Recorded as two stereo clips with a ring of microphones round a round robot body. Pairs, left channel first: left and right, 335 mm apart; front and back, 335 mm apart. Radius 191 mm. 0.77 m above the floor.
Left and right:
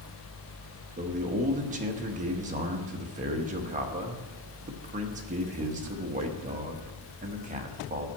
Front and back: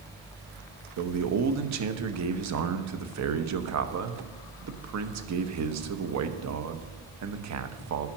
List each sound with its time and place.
1.0 s a man speaking: 155° right, 0.9 m